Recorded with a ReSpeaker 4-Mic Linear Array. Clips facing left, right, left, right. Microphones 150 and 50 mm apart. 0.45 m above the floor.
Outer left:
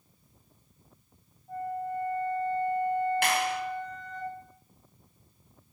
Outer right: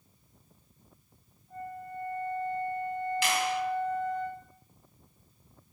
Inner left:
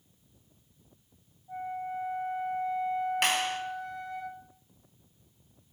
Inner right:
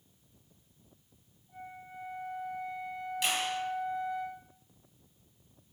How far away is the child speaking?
No child speaking in this recording.